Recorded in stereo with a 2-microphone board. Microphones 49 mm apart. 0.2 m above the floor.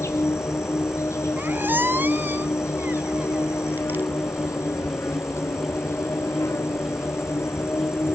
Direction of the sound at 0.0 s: 75° left (ahead or behind).